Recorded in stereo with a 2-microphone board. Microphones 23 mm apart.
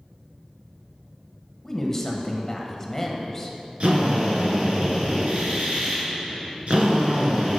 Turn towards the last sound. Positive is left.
turn(degrees=-60)  # may be behind; listen again after turning